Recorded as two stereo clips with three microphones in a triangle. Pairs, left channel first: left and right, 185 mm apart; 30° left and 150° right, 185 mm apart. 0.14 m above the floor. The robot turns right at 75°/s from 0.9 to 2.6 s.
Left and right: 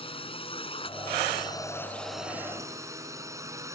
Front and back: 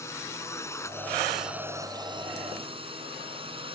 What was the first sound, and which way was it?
A drone, 90° left.